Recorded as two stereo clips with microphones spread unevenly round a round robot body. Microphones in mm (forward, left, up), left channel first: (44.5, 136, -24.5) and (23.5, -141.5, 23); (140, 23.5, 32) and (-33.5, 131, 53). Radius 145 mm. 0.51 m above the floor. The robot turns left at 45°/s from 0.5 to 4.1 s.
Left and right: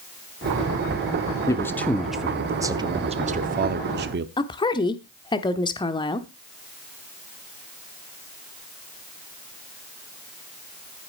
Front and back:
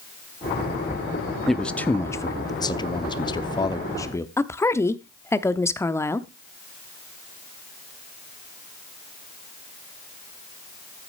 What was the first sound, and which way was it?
A man speaking, 45° left.